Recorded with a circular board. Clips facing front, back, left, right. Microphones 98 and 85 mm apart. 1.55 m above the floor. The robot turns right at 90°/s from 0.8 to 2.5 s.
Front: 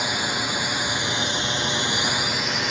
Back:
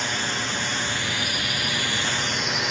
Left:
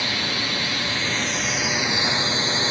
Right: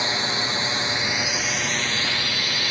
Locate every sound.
0.0 s a drone: 65° right; by 2.7 s 90° left